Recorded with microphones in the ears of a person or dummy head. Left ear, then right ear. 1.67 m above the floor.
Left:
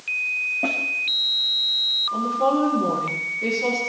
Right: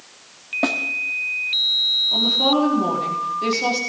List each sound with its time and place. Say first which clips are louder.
0.6 s a snare drum: right 7 dB; 55° right (ahead or behind), 1.7 m
2.1 s a woman speaking: right 4 dB; 30° right (ahead or behind), 4.5 m